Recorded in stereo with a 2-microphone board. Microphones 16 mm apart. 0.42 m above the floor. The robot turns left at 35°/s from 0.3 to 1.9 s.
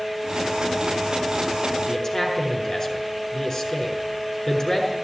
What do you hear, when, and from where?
1.9 s a man speaking: 30° left (ahead or behind), 6 m